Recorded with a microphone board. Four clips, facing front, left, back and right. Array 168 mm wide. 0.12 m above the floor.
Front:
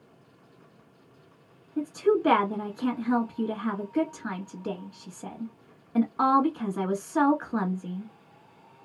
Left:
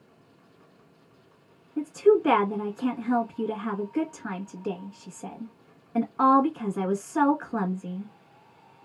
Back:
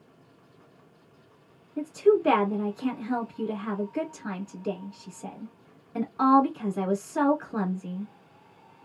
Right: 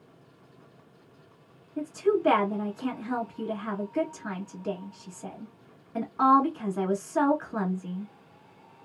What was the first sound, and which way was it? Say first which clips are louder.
A woman speaking: left 5 dB, back 2 dB; 25° left.